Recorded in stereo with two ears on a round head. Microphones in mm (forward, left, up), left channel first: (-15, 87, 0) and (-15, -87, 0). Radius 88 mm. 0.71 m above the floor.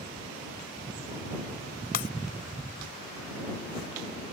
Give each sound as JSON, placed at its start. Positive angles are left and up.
{"t": 1.9, "sound": "breaking glass", "side_deg": 45}